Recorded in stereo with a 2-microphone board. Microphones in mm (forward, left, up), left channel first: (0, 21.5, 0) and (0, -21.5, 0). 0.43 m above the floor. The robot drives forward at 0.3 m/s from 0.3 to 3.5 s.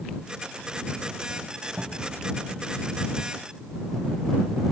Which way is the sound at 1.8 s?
35° right (ahead or behind).